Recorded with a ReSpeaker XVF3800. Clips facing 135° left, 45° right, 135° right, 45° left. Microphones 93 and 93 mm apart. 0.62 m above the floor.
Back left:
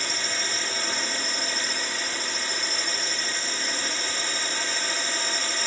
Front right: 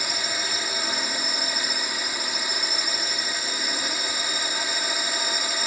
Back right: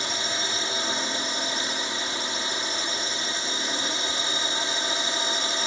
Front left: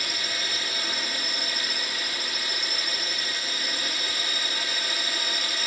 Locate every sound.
0.0 s a drone: 110° right